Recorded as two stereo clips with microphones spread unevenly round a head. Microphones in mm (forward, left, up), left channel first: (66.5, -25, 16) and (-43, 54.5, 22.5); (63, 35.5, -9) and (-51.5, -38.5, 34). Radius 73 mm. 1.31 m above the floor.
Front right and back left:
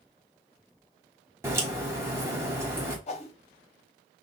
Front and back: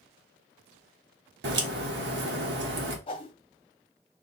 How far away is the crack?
About 1.3 m.